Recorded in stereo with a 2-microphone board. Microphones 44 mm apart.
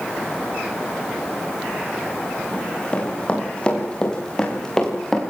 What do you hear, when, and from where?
2.5 s running footsteps: 20° left (ahead or behind), 9.5 m; by 5.2 s 5° left (ahead or behind), 7.5 m